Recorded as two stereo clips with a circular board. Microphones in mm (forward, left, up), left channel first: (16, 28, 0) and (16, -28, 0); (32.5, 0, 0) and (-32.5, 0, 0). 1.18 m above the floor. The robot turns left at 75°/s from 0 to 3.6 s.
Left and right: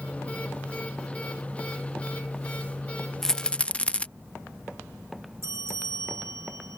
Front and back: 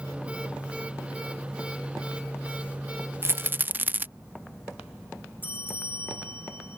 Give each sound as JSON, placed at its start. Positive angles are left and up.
{"t": 3.2, "sound": "a rattle", "azimuth_deg": 170}
{"t": 5.4, "sound": "a bell", "azimuth_deg": -60}